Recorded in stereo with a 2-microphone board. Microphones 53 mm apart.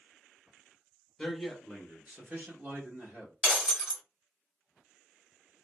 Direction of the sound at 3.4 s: 15° right (ahead or behind).